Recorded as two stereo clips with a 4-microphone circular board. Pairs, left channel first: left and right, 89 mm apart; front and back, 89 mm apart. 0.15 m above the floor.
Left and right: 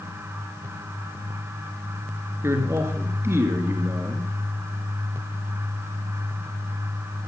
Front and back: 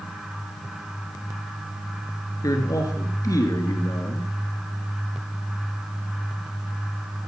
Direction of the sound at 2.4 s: 35° right.